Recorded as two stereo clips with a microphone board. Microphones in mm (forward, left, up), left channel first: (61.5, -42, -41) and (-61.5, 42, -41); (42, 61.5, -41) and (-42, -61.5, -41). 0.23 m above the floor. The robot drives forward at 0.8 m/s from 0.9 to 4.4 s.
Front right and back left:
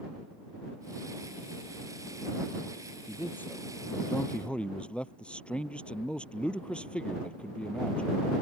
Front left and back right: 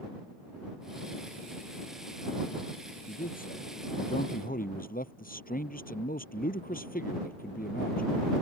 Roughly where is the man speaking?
Ahead left.